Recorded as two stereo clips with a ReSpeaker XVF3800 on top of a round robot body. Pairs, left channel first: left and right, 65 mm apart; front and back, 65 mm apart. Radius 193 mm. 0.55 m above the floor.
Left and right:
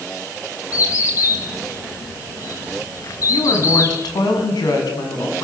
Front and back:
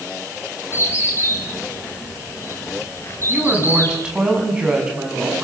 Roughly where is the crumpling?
I don't hear crumpling.